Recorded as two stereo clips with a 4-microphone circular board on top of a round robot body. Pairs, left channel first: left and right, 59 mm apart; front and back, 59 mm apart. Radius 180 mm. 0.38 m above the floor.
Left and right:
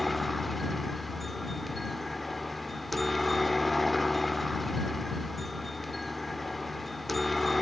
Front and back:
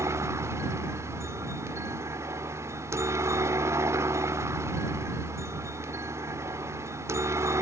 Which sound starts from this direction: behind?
A helicopter, at 0.0 s.